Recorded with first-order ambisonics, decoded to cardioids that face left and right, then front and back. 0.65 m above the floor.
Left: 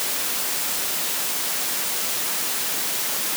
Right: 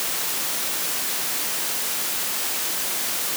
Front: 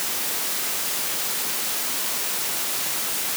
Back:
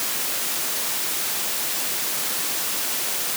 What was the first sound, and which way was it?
Only background noise.